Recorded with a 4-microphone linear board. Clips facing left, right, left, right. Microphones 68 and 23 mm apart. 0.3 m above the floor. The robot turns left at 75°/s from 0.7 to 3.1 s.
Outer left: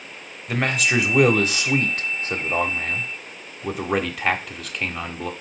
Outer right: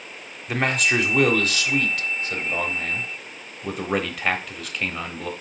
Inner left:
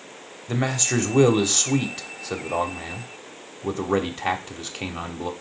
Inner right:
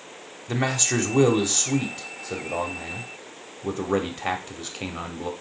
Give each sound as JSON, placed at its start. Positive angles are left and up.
{"t": 0.5, "sound": "a man speaking", "azimuth_deg": -175, "distance_m": 0.9}